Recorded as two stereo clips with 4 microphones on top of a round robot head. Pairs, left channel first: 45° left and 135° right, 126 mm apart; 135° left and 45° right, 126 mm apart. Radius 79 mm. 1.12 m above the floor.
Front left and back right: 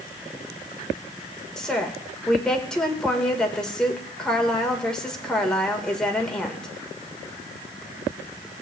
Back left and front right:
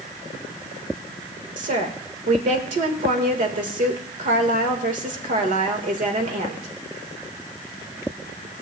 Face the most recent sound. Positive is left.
turn(degrees=-35)